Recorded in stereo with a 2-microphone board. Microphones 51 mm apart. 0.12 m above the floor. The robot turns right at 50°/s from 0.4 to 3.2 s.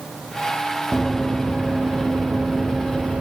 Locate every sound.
0.9 s running footsteps: 5° right (ahead or behind), 1.1 m; by 3.2 s 30° right (ahead or behind), 0.8 m